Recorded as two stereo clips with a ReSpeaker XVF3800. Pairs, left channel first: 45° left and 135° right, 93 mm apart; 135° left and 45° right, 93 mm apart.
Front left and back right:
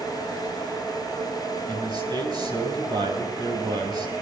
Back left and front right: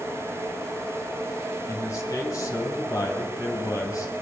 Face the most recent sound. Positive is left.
turn(degrees=-170)